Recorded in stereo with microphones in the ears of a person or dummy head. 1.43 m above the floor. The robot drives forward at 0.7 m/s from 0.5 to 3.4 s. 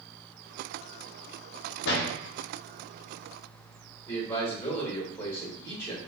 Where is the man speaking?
25° left (ahead or behind), 1.6 m.